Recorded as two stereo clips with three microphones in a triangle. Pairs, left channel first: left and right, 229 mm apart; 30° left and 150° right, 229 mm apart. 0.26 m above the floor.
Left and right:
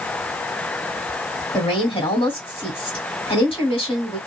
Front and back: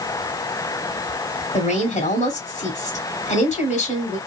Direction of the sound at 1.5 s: 50° left.